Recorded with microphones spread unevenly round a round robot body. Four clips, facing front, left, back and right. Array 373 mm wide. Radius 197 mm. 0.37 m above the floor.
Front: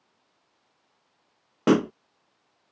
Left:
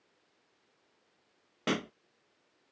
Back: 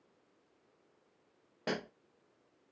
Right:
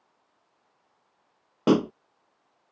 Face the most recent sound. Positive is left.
turn(degrees=-35)